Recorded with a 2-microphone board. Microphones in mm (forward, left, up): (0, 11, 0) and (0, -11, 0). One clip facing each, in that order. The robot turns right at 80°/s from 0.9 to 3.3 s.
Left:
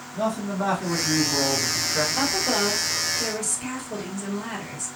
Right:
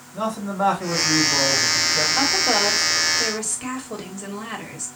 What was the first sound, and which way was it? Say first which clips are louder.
A man speaking: right 1 dB; 75° right.